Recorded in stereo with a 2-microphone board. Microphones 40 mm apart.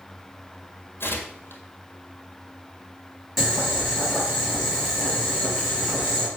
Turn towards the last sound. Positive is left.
turn(degrees=-5)  # may be behind; listen again after turning